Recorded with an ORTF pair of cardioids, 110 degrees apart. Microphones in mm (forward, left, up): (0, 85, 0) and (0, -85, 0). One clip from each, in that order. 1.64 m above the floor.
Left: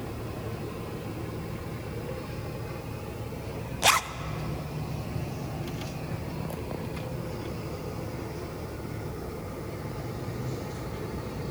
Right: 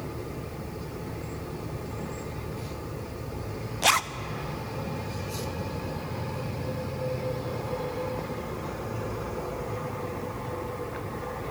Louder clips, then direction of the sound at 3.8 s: Even; straight ahead.